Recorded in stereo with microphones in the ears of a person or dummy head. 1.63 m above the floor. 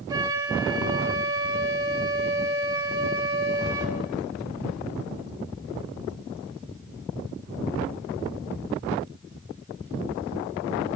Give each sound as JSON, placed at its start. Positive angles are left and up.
{"t": 0.1, "sound": "a flute", "side_deg": -25, "distance_m": 2.5}